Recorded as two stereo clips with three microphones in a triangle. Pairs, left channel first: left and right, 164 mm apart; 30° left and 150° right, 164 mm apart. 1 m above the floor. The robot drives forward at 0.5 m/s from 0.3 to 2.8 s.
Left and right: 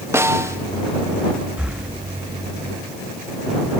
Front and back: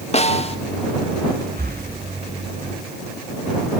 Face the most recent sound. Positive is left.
turn(degrees=-175)